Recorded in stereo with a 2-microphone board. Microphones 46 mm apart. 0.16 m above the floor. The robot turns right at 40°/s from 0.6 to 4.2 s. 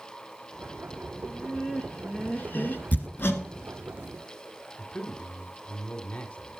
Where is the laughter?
10° left, 1.8 m; by 2.8 s 75° left, 1.8 m.